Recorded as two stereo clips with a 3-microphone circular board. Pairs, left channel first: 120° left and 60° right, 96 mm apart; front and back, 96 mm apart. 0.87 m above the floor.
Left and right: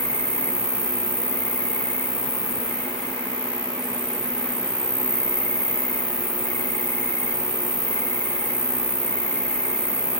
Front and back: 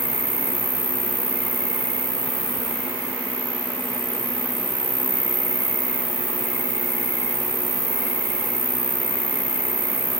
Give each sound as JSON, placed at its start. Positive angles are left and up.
{"t": 0.0, "sound": "an insect", "azimuth_deg": 155, "distance_m": 0.7}